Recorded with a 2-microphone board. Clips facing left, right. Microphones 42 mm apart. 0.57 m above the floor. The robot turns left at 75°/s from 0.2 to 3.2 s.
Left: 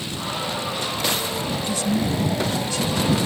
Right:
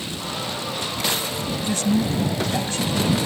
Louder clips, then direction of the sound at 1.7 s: Right 3 dB; 50° right.